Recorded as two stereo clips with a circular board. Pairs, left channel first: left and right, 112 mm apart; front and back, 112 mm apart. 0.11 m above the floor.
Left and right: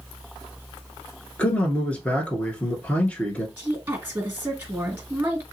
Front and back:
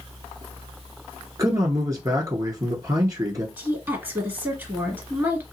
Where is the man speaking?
160° left, 1.3 m.